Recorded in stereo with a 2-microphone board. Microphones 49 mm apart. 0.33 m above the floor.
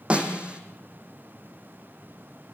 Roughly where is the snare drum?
Right.